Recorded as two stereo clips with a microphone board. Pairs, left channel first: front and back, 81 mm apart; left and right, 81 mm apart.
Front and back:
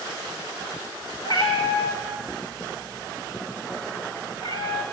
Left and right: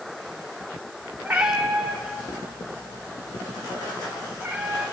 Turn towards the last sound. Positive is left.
turn(degrees=-20)